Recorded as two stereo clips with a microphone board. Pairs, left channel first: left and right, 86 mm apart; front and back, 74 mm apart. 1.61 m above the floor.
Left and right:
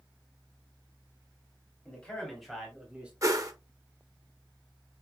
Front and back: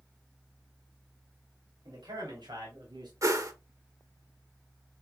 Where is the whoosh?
140° right, 0.8 m.